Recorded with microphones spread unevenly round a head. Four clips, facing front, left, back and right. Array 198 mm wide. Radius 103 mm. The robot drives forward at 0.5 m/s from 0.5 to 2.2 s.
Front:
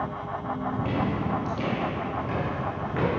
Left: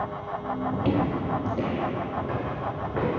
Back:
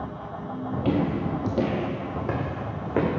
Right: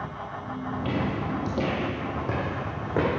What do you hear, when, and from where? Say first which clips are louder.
0.7 s footsteps: left 2 dB, back 6 dB; 110° left, 1.2 m; by 3.1 s 145° right, 3.5 m